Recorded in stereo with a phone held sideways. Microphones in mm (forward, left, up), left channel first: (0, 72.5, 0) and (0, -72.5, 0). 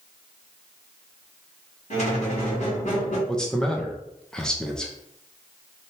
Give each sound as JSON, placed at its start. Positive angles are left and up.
{"t": 1.9, "sound": "a squeak", "side_deg": 55, "distance_m": 1.8}
{"t": 3.3, "sound": "a man speaking", "side_deg": 5, "distance_m": 0.6}